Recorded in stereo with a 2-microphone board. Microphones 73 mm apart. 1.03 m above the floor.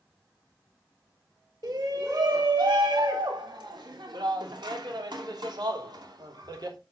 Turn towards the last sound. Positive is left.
turn(degrees=-65)  # may be behind; listen again after turning